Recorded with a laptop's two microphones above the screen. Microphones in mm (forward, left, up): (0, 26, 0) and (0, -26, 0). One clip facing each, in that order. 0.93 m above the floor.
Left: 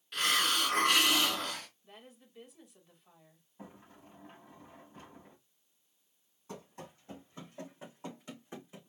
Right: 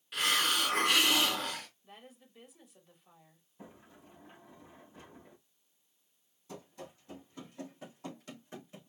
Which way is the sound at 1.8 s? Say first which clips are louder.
Right 1 dB; centre (ahead or behind).